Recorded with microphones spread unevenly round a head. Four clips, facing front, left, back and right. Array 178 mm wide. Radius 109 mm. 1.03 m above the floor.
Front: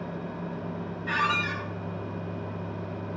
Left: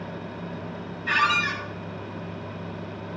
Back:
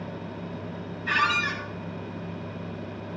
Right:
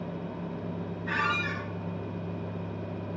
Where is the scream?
I don't hear a scream.